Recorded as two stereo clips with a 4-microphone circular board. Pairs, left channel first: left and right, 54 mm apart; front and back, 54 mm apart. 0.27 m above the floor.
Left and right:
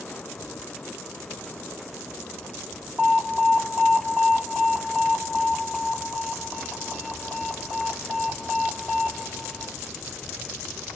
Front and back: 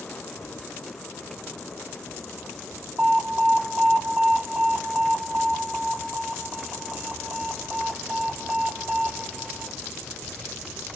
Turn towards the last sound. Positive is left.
turn(degrees=-155)